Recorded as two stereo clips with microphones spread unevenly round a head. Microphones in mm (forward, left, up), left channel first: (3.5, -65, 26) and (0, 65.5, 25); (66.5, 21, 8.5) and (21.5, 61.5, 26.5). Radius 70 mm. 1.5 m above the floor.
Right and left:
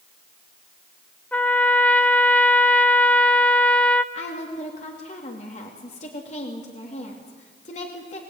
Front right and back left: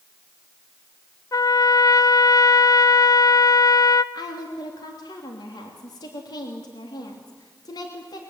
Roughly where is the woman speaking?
Ahead right.